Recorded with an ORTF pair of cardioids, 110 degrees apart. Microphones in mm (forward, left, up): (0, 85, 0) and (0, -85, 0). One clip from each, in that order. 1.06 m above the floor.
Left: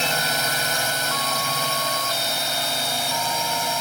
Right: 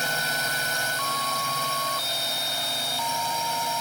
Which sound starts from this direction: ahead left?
A drone, at 0.0 s.